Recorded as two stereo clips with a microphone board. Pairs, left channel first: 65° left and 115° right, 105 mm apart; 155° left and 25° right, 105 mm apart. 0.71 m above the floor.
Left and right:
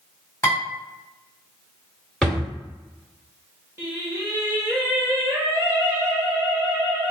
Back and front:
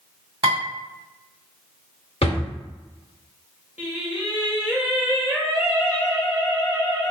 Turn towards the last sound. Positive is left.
turn(degrees=-85)